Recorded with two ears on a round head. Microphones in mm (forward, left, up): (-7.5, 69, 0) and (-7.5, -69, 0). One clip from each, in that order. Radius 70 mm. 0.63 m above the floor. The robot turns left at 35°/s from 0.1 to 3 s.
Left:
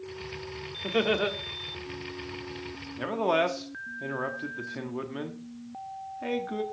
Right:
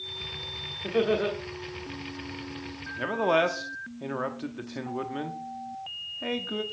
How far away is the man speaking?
About 1.0 m.